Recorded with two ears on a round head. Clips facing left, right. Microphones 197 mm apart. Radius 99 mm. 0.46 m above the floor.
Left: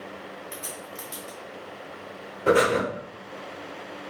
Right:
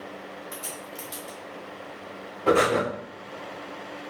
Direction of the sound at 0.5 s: Centre (ahead or behind).